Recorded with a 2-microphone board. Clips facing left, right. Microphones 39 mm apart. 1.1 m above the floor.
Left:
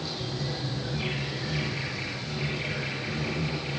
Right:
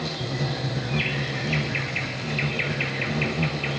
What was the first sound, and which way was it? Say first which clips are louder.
An insect: right 5 dB; 65° right (ahead or behind).